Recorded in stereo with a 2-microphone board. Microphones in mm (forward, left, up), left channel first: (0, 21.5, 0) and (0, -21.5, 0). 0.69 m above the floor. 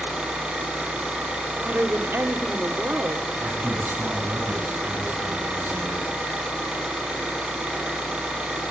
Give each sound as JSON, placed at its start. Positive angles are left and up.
{"t": 0.0, "sound": "an engine running", "side_deg": -20, "distance_m": 6.5}
{"t": 1.6, "sound": "a woman speaking", "side_deg": -50, "distance_m": 2.0}
{"t": 3.4, "sound": "a man speaking", "side_deg": -50, "distance_m": 5.5}